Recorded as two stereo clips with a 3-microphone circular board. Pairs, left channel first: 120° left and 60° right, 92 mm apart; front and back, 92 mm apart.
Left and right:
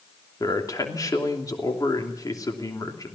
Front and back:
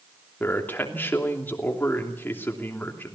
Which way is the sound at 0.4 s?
70° left.